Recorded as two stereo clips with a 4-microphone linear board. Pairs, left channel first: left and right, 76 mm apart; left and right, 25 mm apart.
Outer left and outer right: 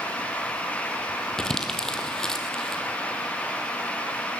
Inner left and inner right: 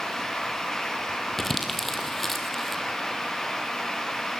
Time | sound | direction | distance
1.4 | crumpling | 10° left (ahead or behind) | 1.9 m